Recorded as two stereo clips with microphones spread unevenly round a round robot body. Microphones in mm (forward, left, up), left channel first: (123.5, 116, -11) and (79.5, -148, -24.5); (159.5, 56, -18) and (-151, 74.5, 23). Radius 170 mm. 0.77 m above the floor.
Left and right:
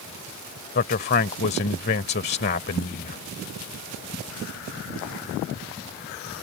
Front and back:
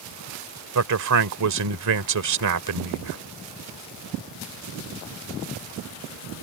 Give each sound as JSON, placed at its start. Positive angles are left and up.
{"t": 0.8, "sound": "a man speaking", "azimuth_deg": 145}